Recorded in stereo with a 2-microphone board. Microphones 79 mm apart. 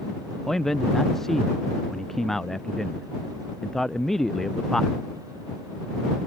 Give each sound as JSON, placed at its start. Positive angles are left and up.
{"t": 0.5, "sound": "a man speaking", "side_deg": 5}